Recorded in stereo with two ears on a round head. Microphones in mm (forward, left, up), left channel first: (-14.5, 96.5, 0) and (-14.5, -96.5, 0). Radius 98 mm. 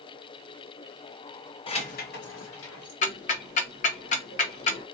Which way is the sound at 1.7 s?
25° left (ahead or behind).